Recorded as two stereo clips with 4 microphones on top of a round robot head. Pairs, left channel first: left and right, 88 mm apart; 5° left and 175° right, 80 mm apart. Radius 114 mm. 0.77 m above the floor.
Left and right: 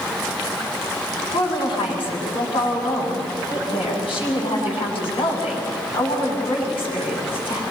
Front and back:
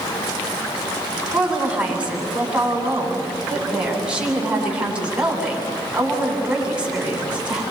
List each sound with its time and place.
1.3 s a woman speaking: 110° left, 8 m